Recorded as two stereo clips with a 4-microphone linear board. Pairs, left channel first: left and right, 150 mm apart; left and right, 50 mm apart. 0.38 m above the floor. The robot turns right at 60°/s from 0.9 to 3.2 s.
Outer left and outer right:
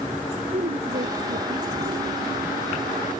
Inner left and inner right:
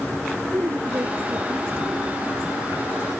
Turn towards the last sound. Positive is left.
turn(degrees=25)